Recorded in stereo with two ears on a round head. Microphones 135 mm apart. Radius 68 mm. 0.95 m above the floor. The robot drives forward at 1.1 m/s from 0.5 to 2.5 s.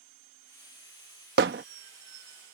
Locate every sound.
1.4 s hammering: 75° right (ahead or behind); by 1.6 s 70° right (ahead or behind)